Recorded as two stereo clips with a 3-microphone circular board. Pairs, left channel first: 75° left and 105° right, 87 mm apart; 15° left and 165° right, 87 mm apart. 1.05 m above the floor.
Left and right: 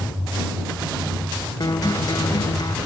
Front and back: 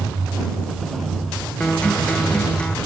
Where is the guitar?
90° left.